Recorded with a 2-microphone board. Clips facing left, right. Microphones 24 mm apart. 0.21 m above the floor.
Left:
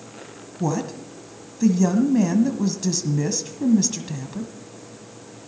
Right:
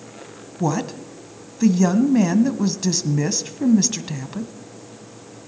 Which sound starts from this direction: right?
A woman speaking, at 0.6 s.